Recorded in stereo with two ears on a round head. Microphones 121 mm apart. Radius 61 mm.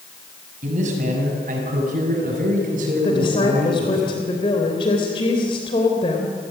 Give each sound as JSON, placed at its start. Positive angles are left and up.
{"t": 0.6, "sound": "a man speaking", "side_deg": -60, "distance_m": 6.5}
{"t": 3.0, "sound": "a woman speaking", "side_deg": 35, "distance_m": 3.0}